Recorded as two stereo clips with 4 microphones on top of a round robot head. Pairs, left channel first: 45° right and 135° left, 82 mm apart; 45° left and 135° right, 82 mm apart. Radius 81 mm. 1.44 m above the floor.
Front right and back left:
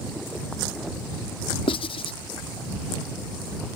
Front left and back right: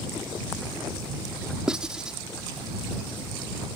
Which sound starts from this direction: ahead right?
Writing, at 1.7 s.